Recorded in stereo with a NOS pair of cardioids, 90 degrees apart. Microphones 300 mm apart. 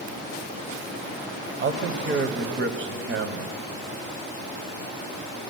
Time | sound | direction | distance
1.6 | a man speaking | 40° right | 0.8 m